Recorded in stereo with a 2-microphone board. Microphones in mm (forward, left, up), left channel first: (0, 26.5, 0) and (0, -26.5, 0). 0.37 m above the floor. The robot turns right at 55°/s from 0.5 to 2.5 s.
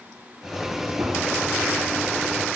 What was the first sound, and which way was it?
A gunshot, 75° right (ahead or behind).